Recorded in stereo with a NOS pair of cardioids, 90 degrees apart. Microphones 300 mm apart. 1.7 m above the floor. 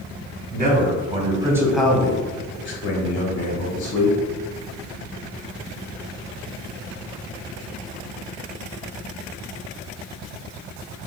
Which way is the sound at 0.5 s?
35° right.